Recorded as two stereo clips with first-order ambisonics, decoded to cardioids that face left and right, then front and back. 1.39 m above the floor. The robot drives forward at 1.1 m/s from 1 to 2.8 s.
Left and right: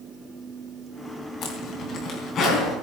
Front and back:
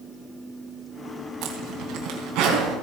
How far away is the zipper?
About 3 m.